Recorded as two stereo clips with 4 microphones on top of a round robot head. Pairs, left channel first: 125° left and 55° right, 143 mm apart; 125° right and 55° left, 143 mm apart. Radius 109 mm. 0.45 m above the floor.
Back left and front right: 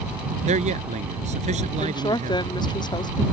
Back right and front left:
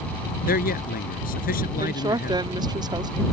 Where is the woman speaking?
90° left.